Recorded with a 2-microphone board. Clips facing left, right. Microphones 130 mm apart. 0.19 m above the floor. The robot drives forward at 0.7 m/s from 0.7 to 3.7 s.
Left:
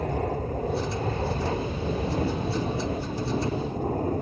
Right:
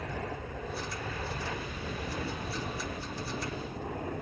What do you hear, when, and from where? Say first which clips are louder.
0.0 s an aircraft: left 10 dB; 40° left (ahead or behind); by 4.2 s 35° left (ahead or behind)